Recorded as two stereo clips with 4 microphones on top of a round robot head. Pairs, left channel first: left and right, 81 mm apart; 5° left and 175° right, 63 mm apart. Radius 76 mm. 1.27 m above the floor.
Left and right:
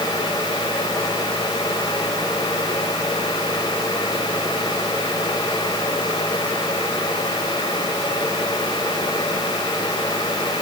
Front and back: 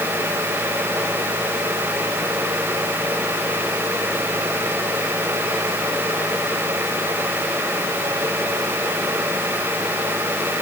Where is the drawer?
I don't hear a drawer.